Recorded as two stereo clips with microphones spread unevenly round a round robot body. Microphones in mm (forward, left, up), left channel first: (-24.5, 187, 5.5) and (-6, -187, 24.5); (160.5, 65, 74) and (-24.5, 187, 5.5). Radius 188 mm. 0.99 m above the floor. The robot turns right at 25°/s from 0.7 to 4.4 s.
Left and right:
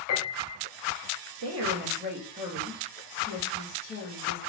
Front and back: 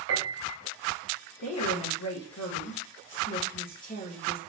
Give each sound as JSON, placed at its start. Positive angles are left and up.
{"t": 0.1, "sound": "a piano", "azimuth_deg": 140, "distance_m": 2.5}
{"t": 1.4, "sound": "a woman speaking", "azimuth_deg": -35, "distance_m": 1.6}